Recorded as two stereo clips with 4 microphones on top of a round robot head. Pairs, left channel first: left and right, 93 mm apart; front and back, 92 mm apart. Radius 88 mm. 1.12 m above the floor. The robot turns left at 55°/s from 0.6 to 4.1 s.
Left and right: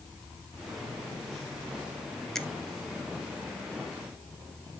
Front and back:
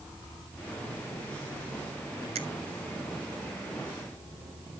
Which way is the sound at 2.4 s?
175° left.